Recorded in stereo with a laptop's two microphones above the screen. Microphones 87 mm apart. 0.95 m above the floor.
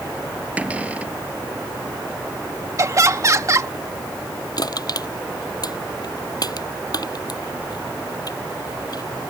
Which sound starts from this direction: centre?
A cupboard door, at 0.6 s.